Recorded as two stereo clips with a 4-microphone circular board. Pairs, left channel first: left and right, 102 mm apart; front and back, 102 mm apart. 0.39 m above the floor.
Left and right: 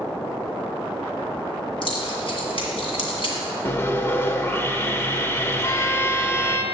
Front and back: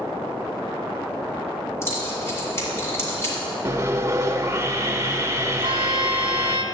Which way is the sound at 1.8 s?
65° left.